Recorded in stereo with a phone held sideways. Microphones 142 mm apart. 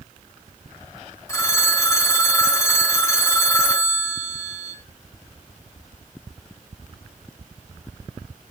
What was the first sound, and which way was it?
A phone ringing, 25° left (ahead or behind).